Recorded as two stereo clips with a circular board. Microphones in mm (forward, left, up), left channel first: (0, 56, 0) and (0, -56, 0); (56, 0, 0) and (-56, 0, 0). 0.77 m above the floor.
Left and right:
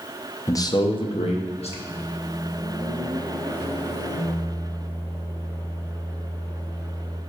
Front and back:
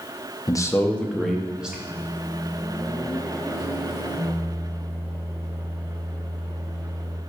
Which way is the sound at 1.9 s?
95° left.